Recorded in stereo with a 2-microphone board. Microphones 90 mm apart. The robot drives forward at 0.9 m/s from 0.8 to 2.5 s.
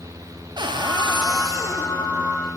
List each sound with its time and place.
0.6 s a cupboard door: 60° right (ahead or behind), 0.7 m; by 2.0 s 30° right (ahead or behind), 1.3 m